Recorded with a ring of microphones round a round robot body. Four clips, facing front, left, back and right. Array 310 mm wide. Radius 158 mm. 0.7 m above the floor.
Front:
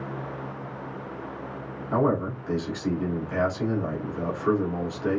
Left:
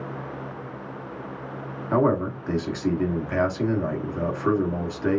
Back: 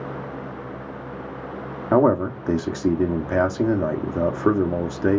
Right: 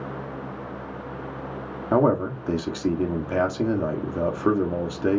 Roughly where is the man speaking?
Behind.